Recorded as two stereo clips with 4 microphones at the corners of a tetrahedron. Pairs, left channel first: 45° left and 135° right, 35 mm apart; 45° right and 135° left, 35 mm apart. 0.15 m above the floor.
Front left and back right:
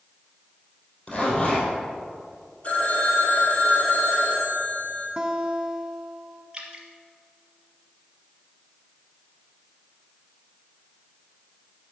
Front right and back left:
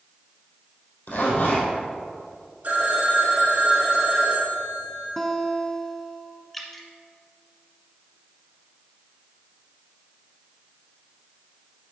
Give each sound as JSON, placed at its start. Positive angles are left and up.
{"t": 1.1, "sound": "a zipper", "azimuth_deg": -20, "distance_m": 3.0}
{"t": 2.6, "sound": "a phone ringing", "azimuth_deg": 95, "distance_m": 3.0}
{"t": 5.2, "sound": "a guitar", "azimuth_deg": -120, "distance_m": 0.7}
{"t": 6.5, "sound": "dripping", "azimuth_deg": -130, "distance_m": 1.2}